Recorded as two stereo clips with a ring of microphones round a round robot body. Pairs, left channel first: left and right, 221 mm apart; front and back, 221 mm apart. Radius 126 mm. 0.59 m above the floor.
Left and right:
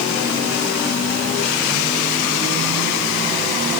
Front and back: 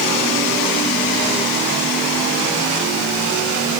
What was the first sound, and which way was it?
Only background noise.